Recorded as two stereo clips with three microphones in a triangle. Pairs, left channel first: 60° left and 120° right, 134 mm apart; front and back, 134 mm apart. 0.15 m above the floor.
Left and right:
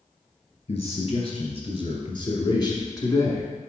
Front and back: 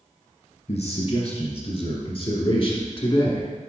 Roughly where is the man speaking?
Ahead left.